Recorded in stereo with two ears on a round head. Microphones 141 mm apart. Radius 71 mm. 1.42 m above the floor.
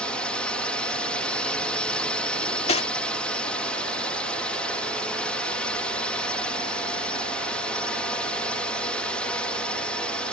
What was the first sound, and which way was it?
A drone, 5° left (ahead or behind).